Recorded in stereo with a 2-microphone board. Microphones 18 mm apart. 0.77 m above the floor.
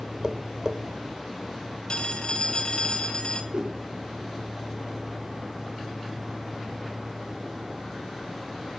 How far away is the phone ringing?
About 3 m.